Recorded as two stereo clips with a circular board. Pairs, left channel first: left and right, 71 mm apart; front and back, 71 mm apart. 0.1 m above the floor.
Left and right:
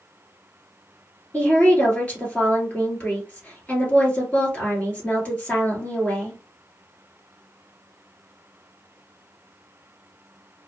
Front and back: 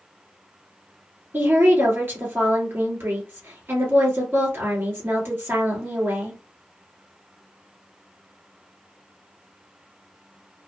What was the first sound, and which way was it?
A woman speaking, 145° left.